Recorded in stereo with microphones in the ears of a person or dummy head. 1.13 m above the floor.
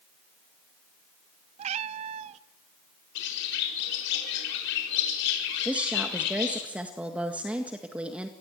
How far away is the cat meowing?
About 0.7 m.